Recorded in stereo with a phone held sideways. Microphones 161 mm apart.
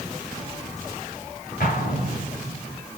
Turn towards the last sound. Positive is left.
turn(degrees=80)